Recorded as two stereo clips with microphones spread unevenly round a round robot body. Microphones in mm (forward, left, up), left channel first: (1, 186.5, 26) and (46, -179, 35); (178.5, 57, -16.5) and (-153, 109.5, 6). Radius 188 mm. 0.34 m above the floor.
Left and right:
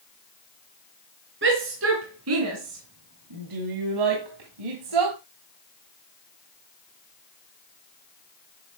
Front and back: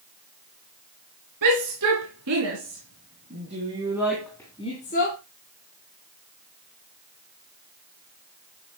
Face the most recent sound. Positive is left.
turn(degrees=-70)